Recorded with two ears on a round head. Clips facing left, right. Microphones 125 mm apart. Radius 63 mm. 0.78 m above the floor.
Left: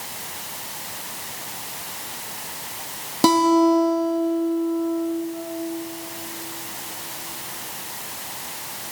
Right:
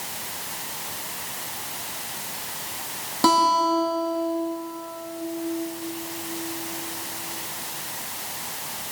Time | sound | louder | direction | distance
3.2 | a guitar | left 4 dB | 20° left (ahead or behind) | 1.3 m